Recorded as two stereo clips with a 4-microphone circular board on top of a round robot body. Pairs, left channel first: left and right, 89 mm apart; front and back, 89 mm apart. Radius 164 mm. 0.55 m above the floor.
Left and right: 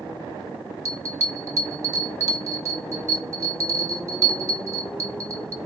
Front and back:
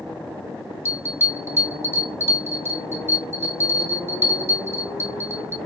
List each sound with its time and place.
0.8 s a bell: 130° right, 0.7 m